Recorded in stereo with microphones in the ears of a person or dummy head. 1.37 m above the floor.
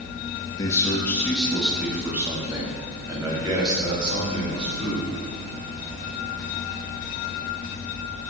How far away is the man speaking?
About 1.7 m.